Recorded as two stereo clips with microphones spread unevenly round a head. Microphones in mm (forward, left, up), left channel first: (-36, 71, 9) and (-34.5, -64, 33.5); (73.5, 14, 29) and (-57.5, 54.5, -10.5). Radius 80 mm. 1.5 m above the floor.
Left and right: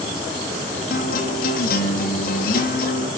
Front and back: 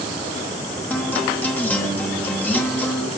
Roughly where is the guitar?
Ahead left.